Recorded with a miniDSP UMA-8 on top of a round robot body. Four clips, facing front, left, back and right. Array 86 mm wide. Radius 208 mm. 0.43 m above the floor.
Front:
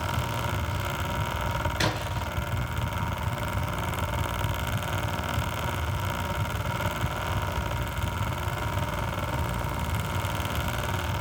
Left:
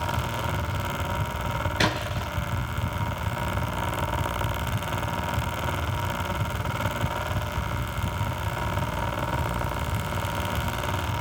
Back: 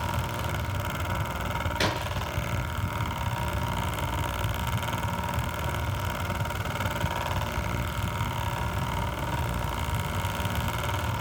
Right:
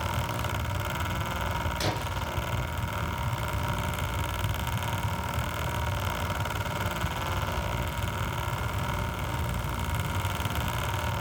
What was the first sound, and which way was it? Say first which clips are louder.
A splash: left 4 dB, even; 90° left.